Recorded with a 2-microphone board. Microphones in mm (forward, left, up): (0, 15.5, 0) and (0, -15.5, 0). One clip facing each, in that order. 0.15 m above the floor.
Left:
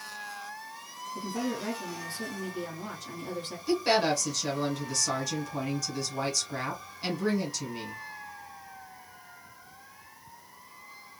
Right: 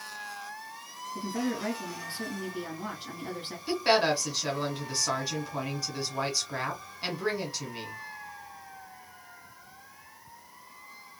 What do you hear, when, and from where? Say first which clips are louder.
1.1 s a woman speaking: right 1 dB; 40° right (ahead or behind), 1.7 m
3.7 s a woman speaking: right 1 dB; 25° right (ahead or behind), 1.3 m